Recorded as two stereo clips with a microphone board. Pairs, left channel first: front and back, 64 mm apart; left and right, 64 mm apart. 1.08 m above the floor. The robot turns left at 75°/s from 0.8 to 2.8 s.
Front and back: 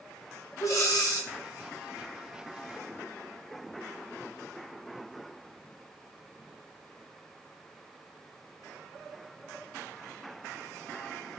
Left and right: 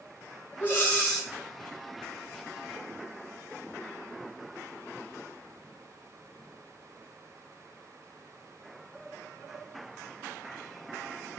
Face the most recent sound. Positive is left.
turn(degrees=-120)